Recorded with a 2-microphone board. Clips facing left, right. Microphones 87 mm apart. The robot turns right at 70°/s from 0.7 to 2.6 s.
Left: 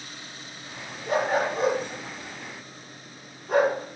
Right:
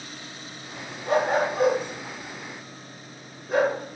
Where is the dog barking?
45° right (ahead or behind), 3 m; by 3.8 s 55° left (ahead or behind), 3 m.